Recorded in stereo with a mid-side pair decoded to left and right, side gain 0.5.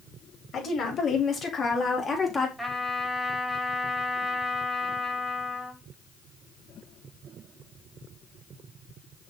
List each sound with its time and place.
0.5 s a woman speaking: 50° left, 4 m; by 2.5 s 20° left, 3 m
2.6 s a trumpet: 5° right, 4.5 m